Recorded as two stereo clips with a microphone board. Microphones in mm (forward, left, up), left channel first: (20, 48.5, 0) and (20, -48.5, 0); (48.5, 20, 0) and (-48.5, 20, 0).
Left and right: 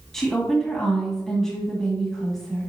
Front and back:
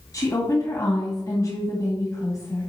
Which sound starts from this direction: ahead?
A woman speaking, at 0.1 s.